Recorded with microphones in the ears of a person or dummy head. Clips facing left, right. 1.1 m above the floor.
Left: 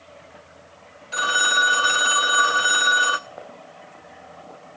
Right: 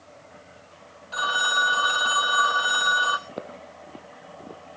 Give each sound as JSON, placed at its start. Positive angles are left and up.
{"t": 1.1, "sound": "a phone ringing", "side_deg": 30, "distance_m": 0.8}
{"t": 3.3, "sound": "footsteps", "side_deg": -50, "distance_m": 1.6}